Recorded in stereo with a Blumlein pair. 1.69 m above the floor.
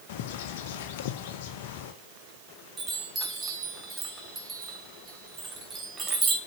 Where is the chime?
20° right, 4 m.